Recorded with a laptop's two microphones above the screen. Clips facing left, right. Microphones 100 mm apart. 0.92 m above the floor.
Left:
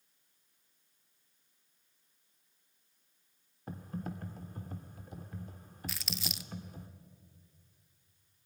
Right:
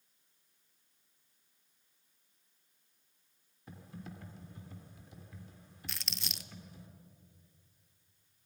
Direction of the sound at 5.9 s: Centre (ahead or behind).